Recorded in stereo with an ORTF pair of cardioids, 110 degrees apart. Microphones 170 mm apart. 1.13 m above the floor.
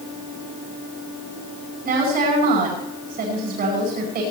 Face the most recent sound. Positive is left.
turn(degrees=-65)